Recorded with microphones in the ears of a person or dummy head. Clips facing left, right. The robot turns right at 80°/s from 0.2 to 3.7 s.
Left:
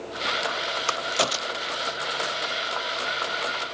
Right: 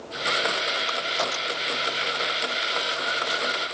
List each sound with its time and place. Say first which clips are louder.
0.9 s a crack: left 2 dB; 70° left (ahead or behind); by 1.9 s 10° right (ahead or behind)